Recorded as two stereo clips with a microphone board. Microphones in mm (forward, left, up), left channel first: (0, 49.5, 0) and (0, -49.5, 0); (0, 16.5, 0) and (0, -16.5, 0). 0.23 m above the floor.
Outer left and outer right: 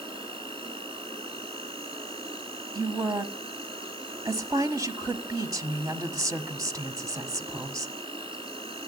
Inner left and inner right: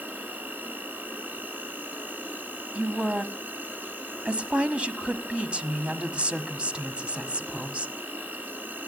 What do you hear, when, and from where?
0.0 s an insect: 55° right (ahead or behind), 4 m
2.8 s a woman speaking: 35° right (ahead or behind), 1.2 m